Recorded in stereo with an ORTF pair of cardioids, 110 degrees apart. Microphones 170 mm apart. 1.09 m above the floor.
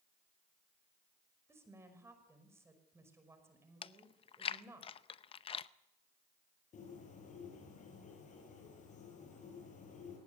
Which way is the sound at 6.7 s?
50° left.